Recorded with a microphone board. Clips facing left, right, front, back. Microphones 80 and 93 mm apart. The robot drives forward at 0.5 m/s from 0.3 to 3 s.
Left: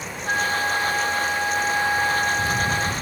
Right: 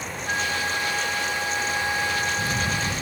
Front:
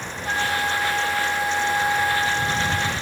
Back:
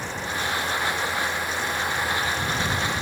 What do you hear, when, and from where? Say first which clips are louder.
0.2 s a flute: left 4 dB, front 5 dB; 25° left